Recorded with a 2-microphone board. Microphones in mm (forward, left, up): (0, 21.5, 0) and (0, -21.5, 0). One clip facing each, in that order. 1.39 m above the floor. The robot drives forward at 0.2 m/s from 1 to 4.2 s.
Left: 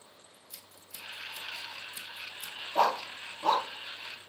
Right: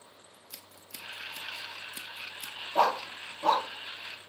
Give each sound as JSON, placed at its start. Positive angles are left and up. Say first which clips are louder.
{"t": 0.3, "sound": "scissors", "louder": "right 2 dB", "side_deg": -70, "distance_m": 1.4}
{"t": 2.8, "sound": "a dog barking", "louder": "right 1 dB", "side_deg": -10, "distance_m": 1.2}